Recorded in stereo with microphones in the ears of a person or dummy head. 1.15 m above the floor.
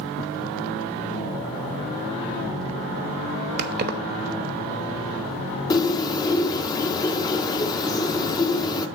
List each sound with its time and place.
3.6 s keys jangling: 45° right (ahead or behind), 1.0 m
5.7 s a bird: 30° left (ahead or behind), 1.0 m